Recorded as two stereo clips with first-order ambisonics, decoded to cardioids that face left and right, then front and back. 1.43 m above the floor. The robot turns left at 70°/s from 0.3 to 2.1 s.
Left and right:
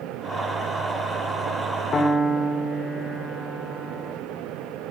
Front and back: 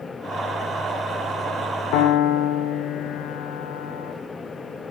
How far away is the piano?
About 0.8 m.